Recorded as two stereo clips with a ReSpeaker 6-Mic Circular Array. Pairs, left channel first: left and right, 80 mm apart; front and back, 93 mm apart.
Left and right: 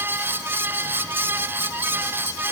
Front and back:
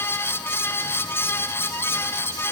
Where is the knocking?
No knocking in this recording.